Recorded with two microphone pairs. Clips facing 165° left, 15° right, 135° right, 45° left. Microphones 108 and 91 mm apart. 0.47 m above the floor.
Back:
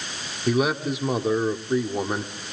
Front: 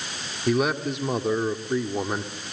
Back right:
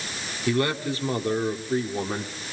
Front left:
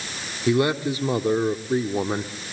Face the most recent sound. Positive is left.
turn(degrees=80)